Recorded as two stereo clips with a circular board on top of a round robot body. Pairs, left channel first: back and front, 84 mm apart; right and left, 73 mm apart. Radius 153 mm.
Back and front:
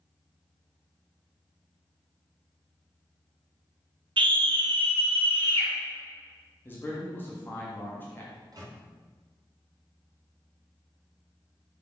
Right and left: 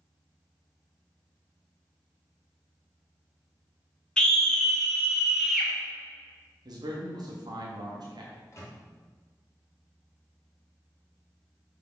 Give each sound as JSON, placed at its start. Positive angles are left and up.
{"t": 4.2, "sound": "a scream", "azimuth_deg": -10, "distance_m": 2.0}
{"t": 6.7, "sound": "a man speaking", "azimuth_deg": 115, "distance_m": 1.4}
{"t": 8.3, "sound": "a microwave", "azimuth_deg": -40, "distance_m": 2.0}